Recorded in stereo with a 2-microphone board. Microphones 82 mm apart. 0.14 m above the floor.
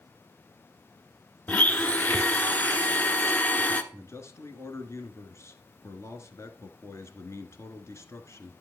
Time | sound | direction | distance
1.5 | a blender | 20° left (ahead or behind) | 0.8 m
3.9 | a man speaking | 35° left (ahead or behind) | 1.7 m